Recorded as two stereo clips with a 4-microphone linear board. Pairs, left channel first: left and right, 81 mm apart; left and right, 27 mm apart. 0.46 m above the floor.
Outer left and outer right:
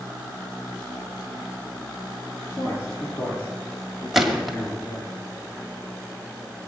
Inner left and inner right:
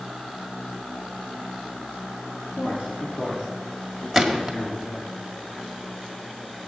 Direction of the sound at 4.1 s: 5° right (ahead or behind).